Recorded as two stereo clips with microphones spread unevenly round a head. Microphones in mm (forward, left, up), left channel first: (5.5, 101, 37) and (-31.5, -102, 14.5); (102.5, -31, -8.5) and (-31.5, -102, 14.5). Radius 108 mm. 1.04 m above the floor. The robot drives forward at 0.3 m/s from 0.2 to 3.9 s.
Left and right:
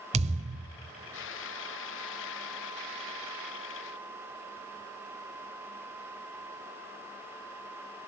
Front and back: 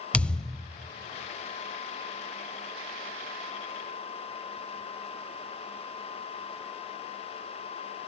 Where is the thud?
60° right, 0.9 m; by 0.7 s 85° right, 0.8 m.